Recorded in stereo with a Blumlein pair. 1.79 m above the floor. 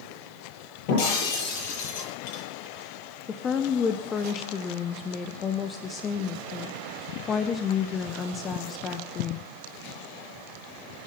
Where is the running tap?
I don't hear a running tap.